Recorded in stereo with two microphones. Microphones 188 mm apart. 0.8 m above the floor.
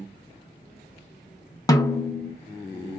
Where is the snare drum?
20° left (ahead or behind), 0.5 m.